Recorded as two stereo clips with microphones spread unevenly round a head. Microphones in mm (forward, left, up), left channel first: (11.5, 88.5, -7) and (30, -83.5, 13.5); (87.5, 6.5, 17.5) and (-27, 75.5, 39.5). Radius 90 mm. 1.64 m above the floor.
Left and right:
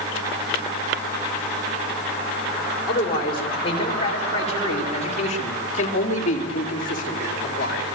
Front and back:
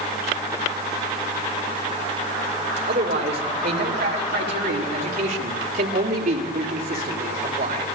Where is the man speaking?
160° left, 5.5 m; by 7.9 s 140° left, 4 m.